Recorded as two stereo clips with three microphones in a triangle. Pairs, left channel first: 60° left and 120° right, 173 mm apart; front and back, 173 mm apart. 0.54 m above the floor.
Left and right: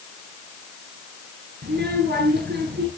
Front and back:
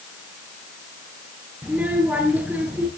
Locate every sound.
1.6 s a child speaking: 95° right, 5.5 m